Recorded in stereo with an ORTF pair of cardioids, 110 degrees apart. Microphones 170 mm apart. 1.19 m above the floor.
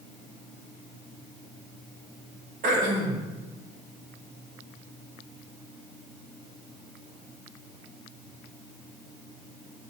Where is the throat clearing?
50° right, 1.6 m.